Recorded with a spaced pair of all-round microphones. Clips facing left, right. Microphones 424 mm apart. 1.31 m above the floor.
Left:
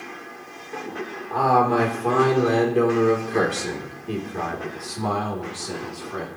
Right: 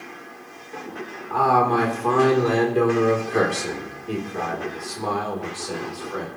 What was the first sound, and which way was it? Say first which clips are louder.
A man speaking: even; 20° right (ahead or behind).